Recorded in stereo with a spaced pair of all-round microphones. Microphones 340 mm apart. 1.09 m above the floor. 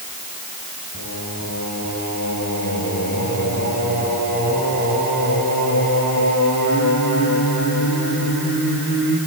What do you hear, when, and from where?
0.9 s singing: 65° left (ahead or behind), 8.5 m